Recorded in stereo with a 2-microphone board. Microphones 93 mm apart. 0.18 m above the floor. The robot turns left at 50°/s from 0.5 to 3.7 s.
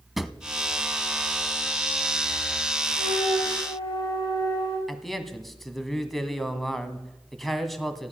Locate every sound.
0.2 s a drawer: centre (ahead or behind), 0.7 m
3.0 s a flute: 115° left, 8.5 m; by 4.8 s 80° left, 8.5 m
4.9 s a man speaking: centre (ahead or behind), 1.5 m